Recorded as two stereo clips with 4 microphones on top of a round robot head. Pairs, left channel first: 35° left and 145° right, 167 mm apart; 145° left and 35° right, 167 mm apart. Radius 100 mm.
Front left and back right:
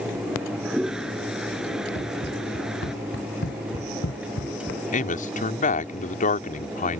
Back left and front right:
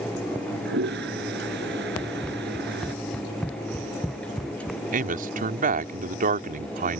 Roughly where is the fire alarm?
I don't hear a fire alarm.